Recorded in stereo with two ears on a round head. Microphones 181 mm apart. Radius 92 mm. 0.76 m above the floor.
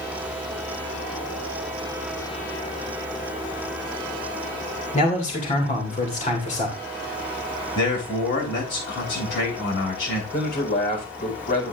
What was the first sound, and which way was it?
A man speaking, 40° left (ahead or behind).